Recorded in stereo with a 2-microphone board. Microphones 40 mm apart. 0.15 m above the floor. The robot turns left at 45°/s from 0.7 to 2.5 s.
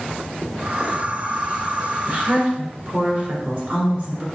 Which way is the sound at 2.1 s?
45° right (ahead or behind).